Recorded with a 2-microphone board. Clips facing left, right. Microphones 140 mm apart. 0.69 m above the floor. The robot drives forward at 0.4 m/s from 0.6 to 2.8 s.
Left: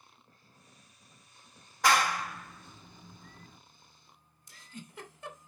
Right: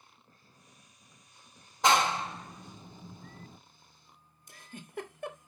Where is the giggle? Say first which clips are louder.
Even; 55° right (ahead or behind), 1.6 m.